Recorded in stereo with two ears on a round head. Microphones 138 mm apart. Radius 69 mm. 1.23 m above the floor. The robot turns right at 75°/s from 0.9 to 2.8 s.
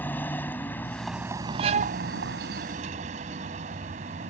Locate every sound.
0.0 s a vehicle: 170° left; by 4.3 s 50° right
1.6 s a violin: 140° right; by 2.0 s 110° right